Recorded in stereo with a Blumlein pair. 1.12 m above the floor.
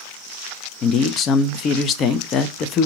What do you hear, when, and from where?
0.8 s a man speaking: 30° left, 0.6 m